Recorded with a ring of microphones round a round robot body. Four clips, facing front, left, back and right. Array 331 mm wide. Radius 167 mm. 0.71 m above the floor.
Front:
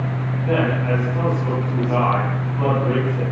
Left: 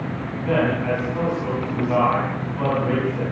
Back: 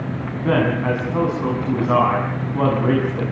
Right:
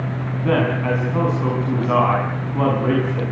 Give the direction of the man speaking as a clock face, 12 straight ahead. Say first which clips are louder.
Right 1 dB, back 2 dB; 5 o'clock.